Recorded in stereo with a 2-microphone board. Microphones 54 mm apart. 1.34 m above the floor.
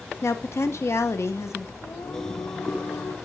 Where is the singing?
70° left (ahead or behind), 1.0 m.